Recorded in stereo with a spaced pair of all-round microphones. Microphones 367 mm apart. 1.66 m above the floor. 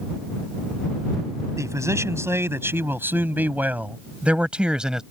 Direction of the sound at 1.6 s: 10° right (ahead or behind).